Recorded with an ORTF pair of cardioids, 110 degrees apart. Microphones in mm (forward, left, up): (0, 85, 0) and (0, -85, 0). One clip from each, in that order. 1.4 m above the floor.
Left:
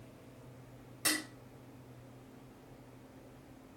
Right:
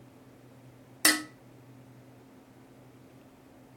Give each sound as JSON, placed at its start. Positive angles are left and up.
{"t": 1.1, "sound": "dishes clattering", "azimuth_deg": -70, "distance_m": 1.3}